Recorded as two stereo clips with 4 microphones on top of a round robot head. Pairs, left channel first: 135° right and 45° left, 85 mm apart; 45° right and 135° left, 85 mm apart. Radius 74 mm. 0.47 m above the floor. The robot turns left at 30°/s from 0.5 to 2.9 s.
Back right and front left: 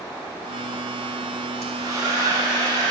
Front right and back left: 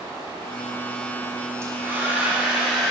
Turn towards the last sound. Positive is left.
turn(degrees=50)